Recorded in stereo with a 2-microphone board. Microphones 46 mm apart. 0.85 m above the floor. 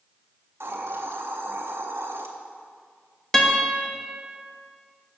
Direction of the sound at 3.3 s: 10° left (ahead or behind).